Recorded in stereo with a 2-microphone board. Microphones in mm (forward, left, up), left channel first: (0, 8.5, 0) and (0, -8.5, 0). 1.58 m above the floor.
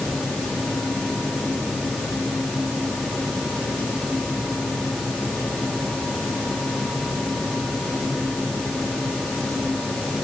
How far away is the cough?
No cough in this recording.